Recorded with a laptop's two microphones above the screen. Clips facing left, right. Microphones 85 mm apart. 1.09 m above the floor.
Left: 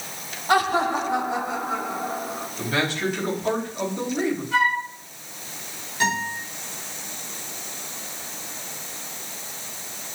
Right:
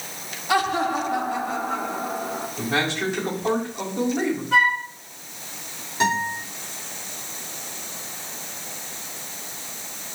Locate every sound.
0.5 s laughter: 45° left (ahead or behind), 1.9 m; by 2.5 s centre (ahead or behind), 3 m
2.6 s a man speaking: 25° right (ahead or behind), 6 m
4.5 s a flute: 45° right (ahead or behind), 3 m
6.0 s a guitar: 25° right (ahead or behind), 5.5 m